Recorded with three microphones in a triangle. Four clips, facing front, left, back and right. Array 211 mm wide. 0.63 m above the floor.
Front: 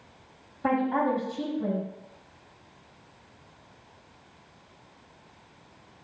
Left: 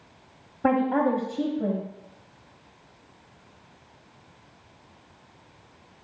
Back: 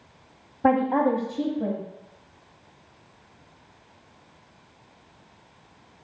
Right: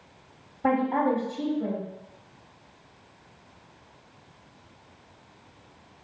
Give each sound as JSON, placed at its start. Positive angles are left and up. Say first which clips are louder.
{"t": 0.6, "sound": "a woman speaking", "louder": "left 1 dB, back 5 dB", "azimuth_deg": 155, "distance_m": 0.8}